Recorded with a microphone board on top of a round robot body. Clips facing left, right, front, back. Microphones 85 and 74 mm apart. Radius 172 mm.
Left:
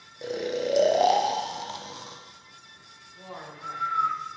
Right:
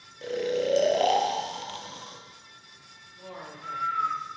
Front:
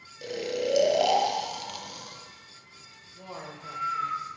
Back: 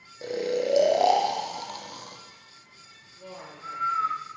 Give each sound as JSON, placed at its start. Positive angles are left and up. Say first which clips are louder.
{"t": 0.2, "sound": "snoring", "louder": "right 1 dB, back 3 dB", "azimuth_deg": 150, "distance_m": 1.0}
{"t": 3.1, "sound": "a man speaking", "louder": "left 1 dB, front 1 dB", "azimuth_deg": 25, "distance_m": 2.0}